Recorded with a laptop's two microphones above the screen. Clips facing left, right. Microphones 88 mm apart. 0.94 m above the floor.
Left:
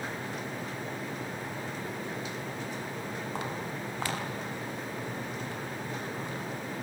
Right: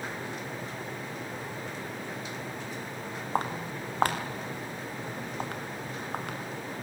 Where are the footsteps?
45° right (ahead or behind), 3.5 m; by 6.4 s 70° right (ahead or behind), 4 m.